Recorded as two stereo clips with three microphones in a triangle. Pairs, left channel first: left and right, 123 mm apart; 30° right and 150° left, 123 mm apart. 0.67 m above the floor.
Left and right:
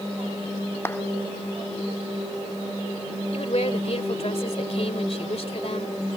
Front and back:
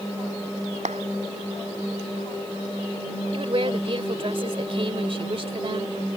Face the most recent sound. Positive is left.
turn(degrees=115)